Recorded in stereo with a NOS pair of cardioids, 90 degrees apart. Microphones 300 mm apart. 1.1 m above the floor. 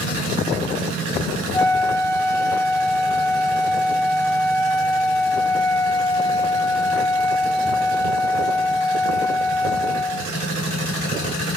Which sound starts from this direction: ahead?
A flute, at 1.5 s.